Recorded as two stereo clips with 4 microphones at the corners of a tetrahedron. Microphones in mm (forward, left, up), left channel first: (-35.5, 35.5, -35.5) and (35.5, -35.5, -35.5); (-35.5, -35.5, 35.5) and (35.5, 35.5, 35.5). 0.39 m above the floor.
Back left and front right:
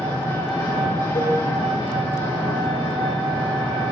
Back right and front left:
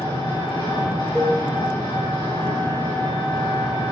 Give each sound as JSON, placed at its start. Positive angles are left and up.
{"t": 0.0, "sound": "an engine running", "azimuth_deg": -170, "distance_m": 5.0}
{"t": 1.1, "sound": "a cowbell", "azimuth_deg": 140, "distance_m": 1.5}